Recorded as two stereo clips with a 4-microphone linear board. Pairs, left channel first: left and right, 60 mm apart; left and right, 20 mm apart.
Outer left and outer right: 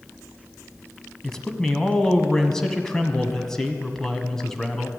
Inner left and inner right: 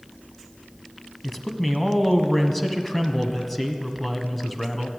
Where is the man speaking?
10° left (ahead or behind), 1.2 m.